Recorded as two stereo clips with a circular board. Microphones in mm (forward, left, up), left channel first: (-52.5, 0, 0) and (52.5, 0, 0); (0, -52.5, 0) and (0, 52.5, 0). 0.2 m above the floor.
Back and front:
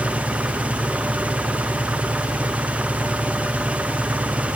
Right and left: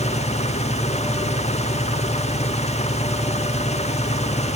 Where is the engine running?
80° right.